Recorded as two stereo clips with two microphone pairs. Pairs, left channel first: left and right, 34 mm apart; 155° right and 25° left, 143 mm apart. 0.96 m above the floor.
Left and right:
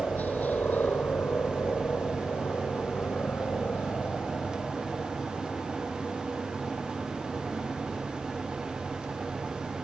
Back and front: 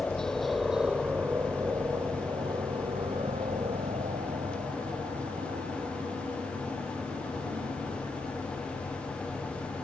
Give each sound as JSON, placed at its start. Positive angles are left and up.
{"t": 0.0, "sound": "a helicopter", "azimuth_deg": 120}